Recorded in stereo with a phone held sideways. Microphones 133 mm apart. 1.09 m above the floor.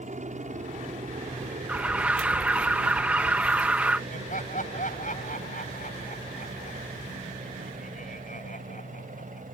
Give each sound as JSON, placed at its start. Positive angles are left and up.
{"t": 0.0, "sound": "a helicopter", "side_deg": -65}
{"t": 1.7, "sound": "an alarm", "side_deg": -10}
{"t": 4.1, "sound": "laughter", "side_deg": 80}